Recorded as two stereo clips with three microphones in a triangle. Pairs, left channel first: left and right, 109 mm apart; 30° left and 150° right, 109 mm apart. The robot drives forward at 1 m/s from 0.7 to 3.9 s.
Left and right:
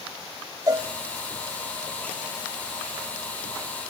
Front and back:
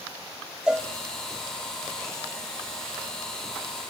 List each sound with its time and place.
0.7 s a cowbell: 75° right, 1.0 m; by 0.9 s 95° right, 0.9 m